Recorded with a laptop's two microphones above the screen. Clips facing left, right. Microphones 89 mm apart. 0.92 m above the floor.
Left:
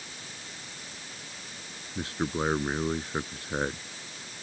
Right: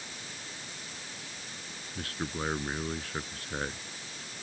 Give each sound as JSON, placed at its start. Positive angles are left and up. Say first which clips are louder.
{"t": 1.9, "sound": "a man speaking", "louder": "left 6 dB", "side_deg": 25}